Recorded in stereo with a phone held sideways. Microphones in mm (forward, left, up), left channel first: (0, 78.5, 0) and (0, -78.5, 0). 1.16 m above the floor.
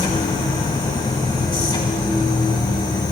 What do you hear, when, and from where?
0.0 s a machine running: 30° left (ahead or behind), 1.2 m